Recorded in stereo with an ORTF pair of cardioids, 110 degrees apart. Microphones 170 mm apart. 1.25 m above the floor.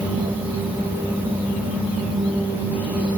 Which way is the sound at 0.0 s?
10° right.